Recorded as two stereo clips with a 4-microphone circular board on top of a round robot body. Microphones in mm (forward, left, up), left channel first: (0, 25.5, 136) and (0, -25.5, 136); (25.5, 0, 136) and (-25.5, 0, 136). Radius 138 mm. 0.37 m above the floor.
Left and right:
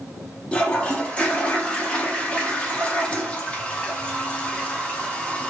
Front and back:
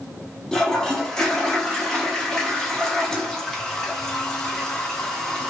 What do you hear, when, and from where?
0.5 s a toilet flushing: 65° left, 1.1 m